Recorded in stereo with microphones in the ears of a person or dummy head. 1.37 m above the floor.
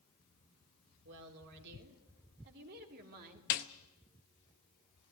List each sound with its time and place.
1.1 s a woman speaking: 65° right (ahead or behind), 3.5 m; by 3.4 s 50° right (ahead or behind), 2.5 m
3.5 s a snare drum: 40° left (ahead or behind), 0.8 m